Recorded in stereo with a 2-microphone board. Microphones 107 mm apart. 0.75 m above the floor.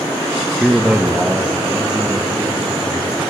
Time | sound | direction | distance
0.6 | a man speaking | 5° right (ahead or behind) | 0.5 m